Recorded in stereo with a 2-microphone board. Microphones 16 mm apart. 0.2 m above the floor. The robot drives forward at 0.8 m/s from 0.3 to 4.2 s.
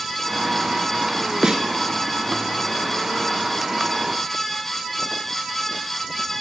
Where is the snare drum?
55° right (ahead or behind), 0.5 m; by 1.6 s 70° right (ahead or behind), 0.5 m.